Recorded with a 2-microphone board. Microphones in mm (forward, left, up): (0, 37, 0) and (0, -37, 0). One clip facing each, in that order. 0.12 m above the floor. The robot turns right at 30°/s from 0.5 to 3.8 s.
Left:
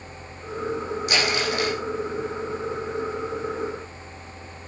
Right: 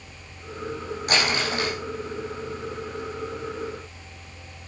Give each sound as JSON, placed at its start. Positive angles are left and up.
{"t": 1.1, "sound": "crumpling", "side_deg": -45, "distance_m": 5.5}